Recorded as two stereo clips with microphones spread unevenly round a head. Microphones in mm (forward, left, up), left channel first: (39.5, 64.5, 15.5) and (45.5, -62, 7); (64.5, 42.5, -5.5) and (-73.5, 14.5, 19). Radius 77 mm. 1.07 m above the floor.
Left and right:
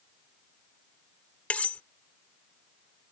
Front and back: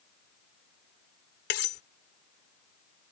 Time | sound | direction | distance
1.5 | cutlery clinking | 15° left | ?